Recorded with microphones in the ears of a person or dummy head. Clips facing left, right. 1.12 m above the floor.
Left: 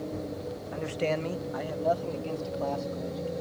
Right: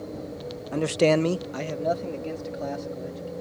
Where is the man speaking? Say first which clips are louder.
Right 10 dB; 55° right (ahead or behind); by 3.3 s 20° right (ahead or behind).